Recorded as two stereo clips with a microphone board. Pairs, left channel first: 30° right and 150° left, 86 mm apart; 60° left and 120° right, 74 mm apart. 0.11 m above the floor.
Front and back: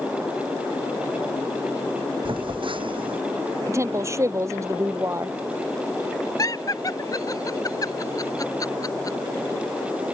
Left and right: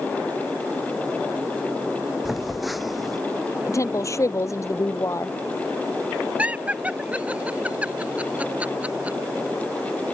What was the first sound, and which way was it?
A phone buzzing, 150° left.